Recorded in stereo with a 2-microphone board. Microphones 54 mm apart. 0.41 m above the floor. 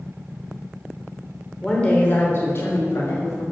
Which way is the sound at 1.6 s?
10° left (ahead or behind).